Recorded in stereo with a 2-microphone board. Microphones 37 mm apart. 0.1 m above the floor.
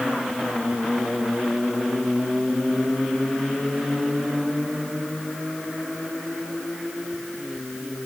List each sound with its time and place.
Only background noise.